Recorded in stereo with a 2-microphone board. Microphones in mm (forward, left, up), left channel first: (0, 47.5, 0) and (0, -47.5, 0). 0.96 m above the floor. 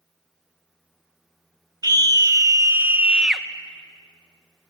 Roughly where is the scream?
Right.